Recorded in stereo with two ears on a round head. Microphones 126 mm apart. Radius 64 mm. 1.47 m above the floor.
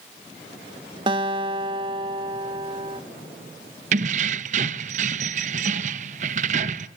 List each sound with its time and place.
1.1 s a guitar: 35° right (ahead or behind), 1.8 m
3.9 s keys jangling: 55° right (ahead or behind), 1.0 m